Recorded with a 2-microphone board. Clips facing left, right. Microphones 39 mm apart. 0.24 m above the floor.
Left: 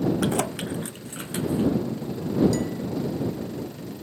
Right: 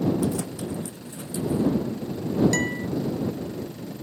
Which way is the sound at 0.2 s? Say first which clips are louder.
Left 2 dB; 70° left (ahead or behind).